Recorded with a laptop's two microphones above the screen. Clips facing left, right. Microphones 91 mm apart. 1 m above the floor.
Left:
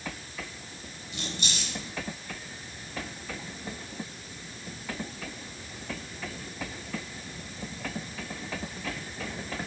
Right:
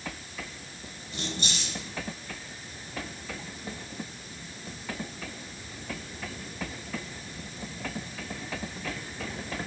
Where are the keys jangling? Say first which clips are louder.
Right 2 dB; 40° right (ahead or behind), 4 m.